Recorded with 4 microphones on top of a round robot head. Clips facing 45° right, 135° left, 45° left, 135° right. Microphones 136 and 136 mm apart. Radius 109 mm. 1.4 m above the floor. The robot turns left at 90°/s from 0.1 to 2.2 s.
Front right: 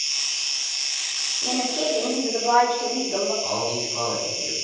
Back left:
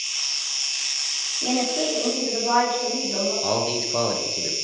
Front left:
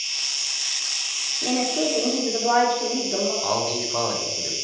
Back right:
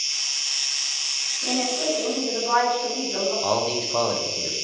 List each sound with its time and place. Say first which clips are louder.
0.0 s an insect: even, front left 1 dB; 90° right, 0.9 m; by 4.7 s 80° left, 0.9 m
1.4 s a woman speaking: back left 1 dB, front left 2 dB; 90° left, 3.5 m; by 3.3 s 15° left, 3.5 m
3.4 s a man speaking: back left 2 dB, back right 1 dB; 145° left, 1.3 m